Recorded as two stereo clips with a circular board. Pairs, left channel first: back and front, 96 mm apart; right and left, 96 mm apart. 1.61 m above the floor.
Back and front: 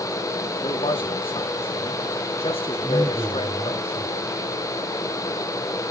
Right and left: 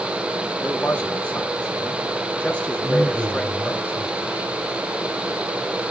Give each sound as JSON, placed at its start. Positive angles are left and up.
{"t": 0.6, "sound": "a man speaking", "azimuth_deg": -170, "distance_m": 1.8}
{"t": 2.8, "sound": "a man speaking", "azimuth_deg": 20, "distance_m": 8.0}